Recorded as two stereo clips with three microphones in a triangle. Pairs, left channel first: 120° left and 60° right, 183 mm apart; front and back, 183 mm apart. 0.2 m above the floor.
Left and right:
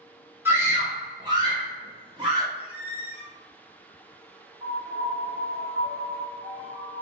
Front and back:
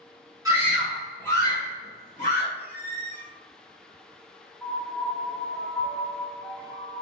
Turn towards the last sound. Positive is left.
turn(degrees=-80)